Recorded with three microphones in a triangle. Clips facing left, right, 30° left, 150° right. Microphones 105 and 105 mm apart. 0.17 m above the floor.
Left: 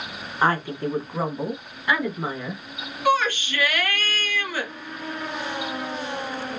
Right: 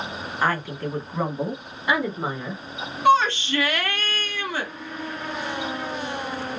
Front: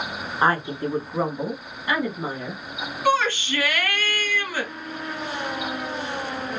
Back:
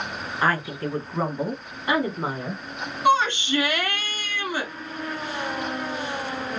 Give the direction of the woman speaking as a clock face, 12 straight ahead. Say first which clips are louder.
Left 3 dB, front 3 dB; 10 o'clock.